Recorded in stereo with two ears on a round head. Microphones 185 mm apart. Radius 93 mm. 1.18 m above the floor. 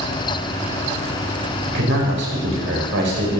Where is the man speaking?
65° right (ahead or behind), 5 m.